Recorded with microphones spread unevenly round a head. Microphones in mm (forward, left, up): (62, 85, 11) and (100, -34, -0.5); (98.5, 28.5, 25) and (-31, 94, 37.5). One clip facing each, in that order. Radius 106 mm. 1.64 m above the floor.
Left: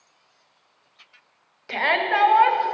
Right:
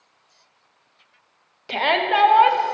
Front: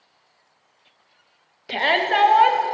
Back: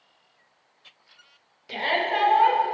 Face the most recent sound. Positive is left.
turn(degrees=0)